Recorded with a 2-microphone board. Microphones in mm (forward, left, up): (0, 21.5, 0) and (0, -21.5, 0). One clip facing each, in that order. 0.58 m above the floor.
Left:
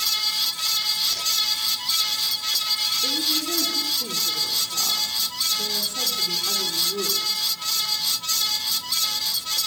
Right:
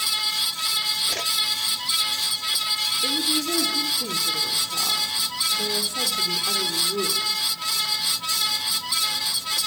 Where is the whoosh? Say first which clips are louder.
Right 1 dB; 45° right (ahead or behind), 0.6 m.